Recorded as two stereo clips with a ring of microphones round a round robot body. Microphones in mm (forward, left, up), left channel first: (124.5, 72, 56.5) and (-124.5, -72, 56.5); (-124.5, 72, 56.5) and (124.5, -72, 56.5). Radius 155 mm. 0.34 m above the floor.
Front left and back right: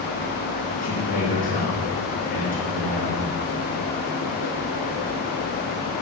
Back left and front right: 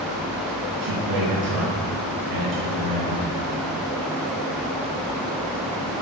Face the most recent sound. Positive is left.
turn(degrees=-35)